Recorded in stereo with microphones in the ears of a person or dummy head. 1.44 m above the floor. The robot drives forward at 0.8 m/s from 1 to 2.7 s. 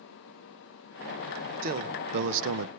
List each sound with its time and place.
1.6 s a man speaking: 50° right (ahead or behind), 1.4 m; by 2.7 s 90° right, 1.1 m